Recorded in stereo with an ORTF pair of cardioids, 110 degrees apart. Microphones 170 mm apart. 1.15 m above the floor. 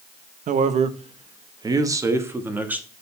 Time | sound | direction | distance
0.5 | a man speaking | 55° right | 1.0 m